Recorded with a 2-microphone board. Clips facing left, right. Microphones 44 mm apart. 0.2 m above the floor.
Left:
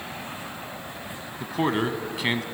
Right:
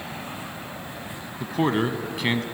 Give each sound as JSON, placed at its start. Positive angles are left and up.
{"t": 1.4, "sound": "a man speaking", "side_deg": 0, "distance_m": 1.2}